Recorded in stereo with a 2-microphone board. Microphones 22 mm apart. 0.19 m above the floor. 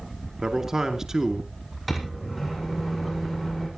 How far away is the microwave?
About 7.5 m.